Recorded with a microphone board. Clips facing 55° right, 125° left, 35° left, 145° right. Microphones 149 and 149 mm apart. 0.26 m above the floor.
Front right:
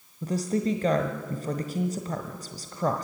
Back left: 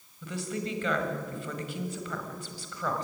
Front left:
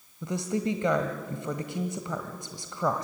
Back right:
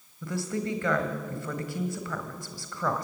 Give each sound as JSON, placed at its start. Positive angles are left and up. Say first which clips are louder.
{"t": 0.2, "sound": "a woman speaking", "louder": "front right 8 dB, front left 2 dB", "azimuth_deg": -25, "distance_m": 1.2}